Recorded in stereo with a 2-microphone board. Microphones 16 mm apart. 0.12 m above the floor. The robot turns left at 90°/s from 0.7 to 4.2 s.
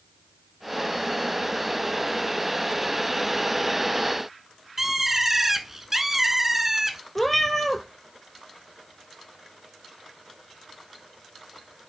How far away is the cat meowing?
About 0.9 m.